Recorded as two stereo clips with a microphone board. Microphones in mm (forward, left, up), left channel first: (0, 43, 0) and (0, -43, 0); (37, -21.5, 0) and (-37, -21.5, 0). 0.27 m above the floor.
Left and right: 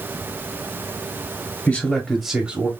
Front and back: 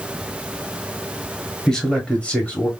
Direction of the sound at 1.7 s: 65° left.